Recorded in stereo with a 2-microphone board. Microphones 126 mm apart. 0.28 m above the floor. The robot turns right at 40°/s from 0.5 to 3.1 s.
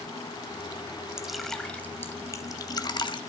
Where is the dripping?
5° right (ahead or behind), 1.0 m; by 3.2 s 40° left (ahead or behind), 1.0 m.